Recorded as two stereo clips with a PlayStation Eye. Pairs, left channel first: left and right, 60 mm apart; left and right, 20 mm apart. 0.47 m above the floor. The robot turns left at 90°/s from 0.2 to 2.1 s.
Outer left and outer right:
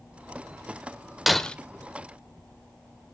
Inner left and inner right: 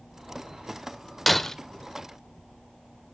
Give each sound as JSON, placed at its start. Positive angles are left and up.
{"t": 1.3, "sound": "breaking glass", "side_deg": 0, "distance_m": 1.0}